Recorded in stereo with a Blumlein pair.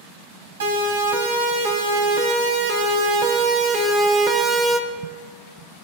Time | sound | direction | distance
0.6 | a siren | 60° right | 5.5 m